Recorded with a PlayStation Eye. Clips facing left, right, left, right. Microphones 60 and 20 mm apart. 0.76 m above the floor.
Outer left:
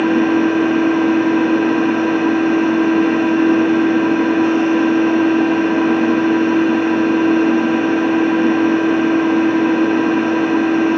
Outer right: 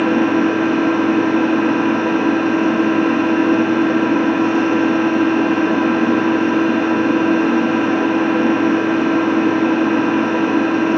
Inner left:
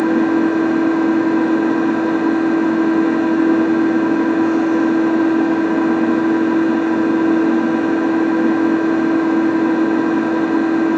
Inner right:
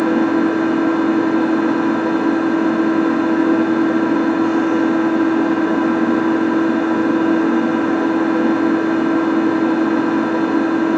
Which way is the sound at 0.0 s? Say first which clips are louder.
Outer left 1 dB, inner left 1 dB; 35° right (ahead or behind).